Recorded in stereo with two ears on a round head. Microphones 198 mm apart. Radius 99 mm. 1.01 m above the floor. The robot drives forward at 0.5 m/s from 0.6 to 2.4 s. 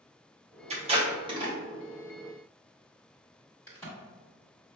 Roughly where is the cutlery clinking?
I don't hear cutlery clinking.